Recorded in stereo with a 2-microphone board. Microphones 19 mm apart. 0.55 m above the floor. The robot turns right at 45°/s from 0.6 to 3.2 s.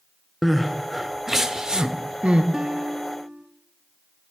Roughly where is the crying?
Centre.